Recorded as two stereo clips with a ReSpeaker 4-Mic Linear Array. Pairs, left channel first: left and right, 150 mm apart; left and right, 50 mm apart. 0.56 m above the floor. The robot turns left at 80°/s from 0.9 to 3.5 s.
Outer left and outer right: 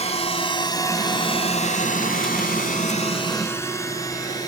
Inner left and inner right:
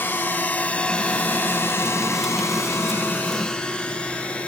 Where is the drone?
45° left (ahead or behind); by 4.5 s 25° left (ahead or behind).